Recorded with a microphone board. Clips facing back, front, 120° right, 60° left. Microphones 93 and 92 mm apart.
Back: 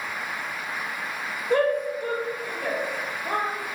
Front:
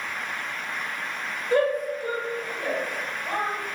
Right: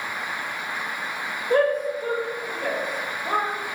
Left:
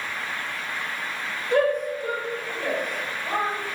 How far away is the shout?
About 1.3 m.